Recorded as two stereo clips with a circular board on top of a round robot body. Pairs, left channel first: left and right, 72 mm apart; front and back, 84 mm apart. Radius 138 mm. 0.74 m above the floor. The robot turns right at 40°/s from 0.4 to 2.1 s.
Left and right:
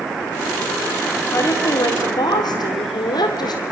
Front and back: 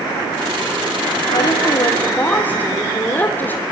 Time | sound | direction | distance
1.3 | a woman speaking | 35° left | 2.5 m